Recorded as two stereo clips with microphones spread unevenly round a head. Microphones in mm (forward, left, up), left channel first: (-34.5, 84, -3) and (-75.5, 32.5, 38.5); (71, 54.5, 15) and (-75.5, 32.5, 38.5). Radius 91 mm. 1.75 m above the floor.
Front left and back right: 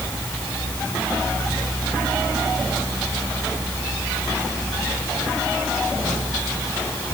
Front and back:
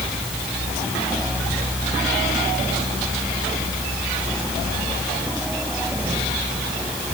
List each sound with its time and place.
Only background noise.